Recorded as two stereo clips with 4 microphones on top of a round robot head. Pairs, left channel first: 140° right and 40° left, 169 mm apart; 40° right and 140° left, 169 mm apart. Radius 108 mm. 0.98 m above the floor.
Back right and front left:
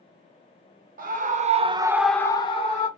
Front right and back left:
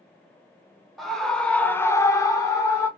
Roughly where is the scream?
Ahead left.